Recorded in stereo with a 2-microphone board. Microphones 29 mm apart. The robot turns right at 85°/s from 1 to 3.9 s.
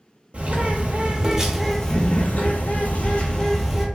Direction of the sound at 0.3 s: 50° right.